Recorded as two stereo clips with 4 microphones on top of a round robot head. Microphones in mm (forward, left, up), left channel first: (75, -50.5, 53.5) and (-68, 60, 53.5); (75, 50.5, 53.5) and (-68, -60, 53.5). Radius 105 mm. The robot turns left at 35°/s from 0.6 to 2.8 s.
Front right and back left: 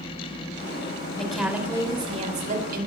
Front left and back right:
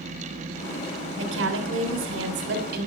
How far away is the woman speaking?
About 3.5 m.